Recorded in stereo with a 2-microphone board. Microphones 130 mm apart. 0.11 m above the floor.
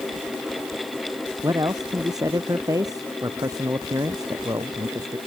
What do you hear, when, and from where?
1.4 s a man speaking: 25° right (ahead or behind)